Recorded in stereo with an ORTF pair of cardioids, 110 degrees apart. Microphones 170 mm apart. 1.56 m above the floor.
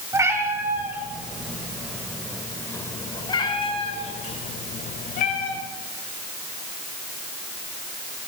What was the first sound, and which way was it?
A cat meowing, 20° right.